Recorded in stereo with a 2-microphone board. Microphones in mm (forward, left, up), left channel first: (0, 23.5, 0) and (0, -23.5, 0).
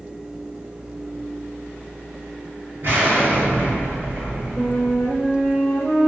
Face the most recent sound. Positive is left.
turn(degrees=50)  # may be behind; listen again after turning